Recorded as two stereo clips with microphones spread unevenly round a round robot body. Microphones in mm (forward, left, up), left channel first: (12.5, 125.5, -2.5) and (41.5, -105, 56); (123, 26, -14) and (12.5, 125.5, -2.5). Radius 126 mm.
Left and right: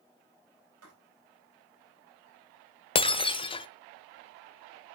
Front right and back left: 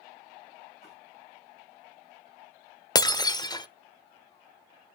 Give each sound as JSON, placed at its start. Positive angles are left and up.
{"t": 0.8, "sound": "writing", "azimuth_deg": -120, "distance_m": 4.5}
{"t": 3.0, "sound": "breaking glass", "azimuth_deg": 20, "distance_m": 0.6}